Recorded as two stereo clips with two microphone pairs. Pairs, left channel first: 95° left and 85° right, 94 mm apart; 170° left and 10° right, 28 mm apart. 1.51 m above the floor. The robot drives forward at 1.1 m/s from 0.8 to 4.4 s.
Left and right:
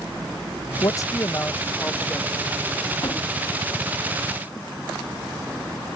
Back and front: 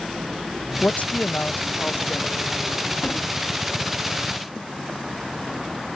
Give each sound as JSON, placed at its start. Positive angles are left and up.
{"t": 0.8, "sound": "a man speaking", "azimuth_deg": 145}
{"t": 3.0, "sound": "a gunshot", "azimuth_deg": 135}